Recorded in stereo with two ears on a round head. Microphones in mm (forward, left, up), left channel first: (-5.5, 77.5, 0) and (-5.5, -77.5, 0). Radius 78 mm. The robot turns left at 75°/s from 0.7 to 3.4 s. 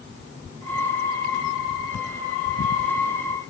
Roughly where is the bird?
I don't hear a bird.